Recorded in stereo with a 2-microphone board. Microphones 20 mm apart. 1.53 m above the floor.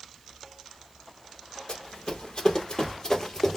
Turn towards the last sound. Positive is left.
turn(degrees=25)  # may be behind; listen again after turning